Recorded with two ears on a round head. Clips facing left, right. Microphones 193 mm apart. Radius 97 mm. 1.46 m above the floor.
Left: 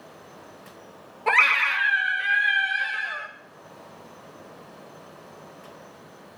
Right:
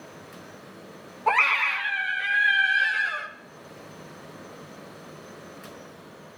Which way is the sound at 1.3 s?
30° left (ahead or behind).